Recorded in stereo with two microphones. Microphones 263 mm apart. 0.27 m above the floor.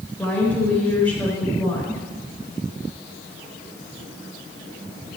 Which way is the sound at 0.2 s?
5° left (ahead or behind).